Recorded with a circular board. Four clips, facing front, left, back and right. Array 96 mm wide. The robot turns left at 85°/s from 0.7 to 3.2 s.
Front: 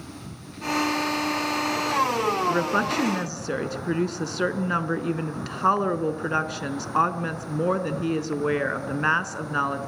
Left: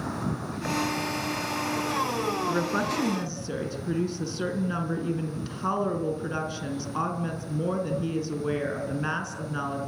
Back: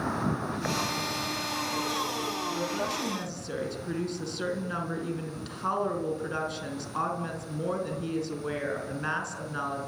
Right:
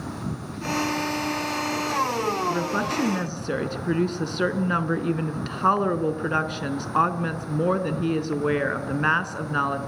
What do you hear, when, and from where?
0.0 s an insect: 165° left, 1.8 m; by 9.9 s 50° right, 1.8 m
2.5 s a woman speaking: 15° left, 3 m; by 9.8 s 50° right, 3 m